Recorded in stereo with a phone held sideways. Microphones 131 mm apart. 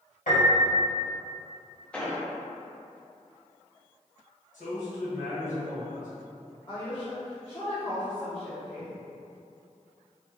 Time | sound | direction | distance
0.3 | a piano | 75° left (ahead or behind) | 1.8 m
1.9 | an explosion | 10° left (ahead or behind) | 0.7 m
4.5 | a man speaking | 70° left (ahead or behind) | 1.9 m
6.7 | a woman speaking | 25° left (ahead or behind) | 1.1 m